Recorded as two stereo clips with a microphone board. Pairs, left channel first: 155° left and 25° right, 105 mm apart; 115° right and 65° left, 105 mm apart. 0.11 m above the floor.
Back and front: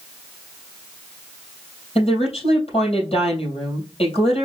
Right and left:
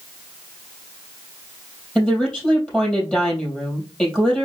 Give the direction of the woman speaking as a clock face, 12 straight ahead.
6 o'clock.